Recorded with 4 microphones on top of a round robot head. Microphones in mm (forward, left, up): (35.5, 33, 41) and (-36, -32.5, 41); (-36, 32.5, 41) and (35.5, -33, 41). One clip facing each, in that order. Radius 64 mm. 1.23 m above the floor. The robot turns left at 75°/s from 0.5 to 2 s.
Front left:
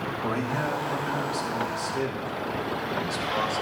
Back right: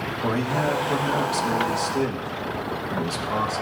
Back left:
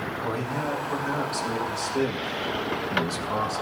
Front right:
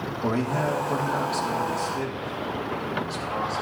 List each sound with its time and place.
0.2 s a man speaking: 65° right, 1.4 m; by 3.6 s 175° right, 1.4 m